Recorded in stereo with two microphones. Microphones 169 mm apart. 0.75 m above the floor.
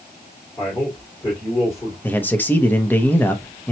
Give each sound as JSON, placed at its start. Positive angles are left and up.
{"t": 0.6, "sound": "a man speaking", "side_deg": 30, "distance_m": 2.5}
{"t": 2.0, "sound": "a man speaking", "side_deg": 10, "distance_m": 0.8}